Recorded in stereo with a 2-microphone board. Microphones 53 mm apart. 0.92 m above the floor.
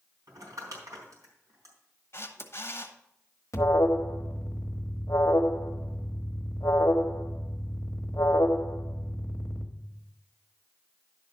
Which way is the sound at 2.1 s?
45° left (ahead or behind).